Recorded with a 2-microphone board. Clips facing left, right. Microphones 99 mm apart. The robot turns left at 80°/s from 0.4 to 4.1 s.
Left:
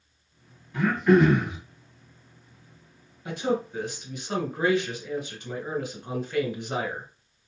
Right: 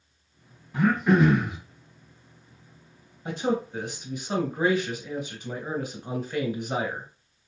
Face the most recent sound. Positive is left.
turn(degrees=-10)  # may be behind; listen again after turning